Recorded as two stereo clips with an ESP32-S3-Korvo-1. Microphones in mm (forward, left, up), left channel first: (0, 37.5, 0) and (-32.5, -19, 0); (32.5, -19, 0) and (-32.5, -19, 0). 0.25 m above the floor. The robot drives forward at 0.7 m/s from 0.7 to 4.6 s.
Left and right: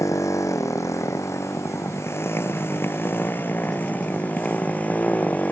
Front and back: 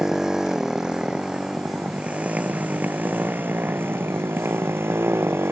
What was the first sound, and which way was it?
A motorcycle, 100° left.